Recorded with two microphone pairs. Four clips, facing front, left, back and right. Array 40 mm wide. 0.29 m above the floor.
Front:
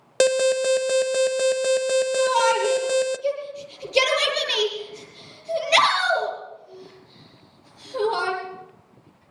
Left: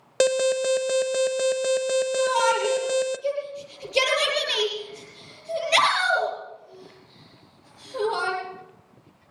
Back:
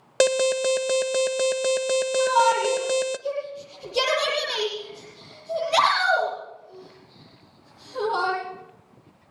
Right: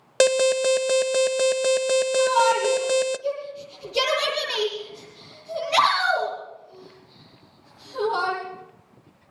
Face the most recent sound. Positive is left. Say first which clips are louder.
# right 3 dB, back 2 dB
turn(degrees=20)